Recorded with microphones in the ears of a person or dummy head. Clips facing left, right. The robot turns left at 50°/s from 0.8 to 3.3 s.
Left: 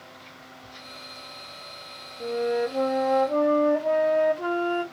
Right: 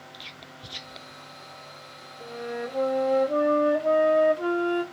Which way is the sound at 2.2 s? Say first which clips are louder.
Left 8 dB; 40° left.